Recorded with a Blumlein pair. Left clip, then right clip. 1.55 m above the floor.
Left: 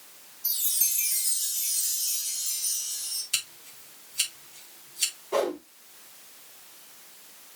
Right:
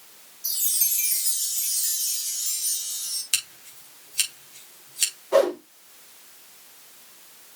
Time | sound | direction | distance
0.4 | a chime | 15° right | 5 m
3.3 | scissors | 25° right | 4 m
5.3 | a whoosh | 20° right | 5.5 m